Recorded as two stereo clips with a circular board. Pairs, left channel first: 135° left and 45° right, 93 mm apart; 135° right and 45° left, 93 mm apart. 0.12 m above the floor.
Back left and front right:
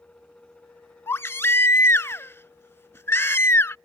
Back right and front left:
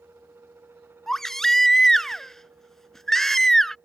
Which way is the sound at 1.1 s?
145° left.